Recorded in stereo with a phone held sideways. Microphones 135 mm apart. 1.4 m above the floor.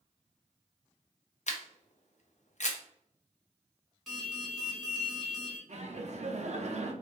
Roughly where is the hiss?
No hiss in this recording.